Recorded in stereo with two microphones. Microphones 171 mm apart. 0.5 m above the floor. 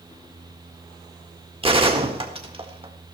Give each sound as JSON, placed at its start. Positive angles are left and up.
{"t": 1.6, "sound": "a gunshot", "side_deg": -35, "distance_m": 1.6}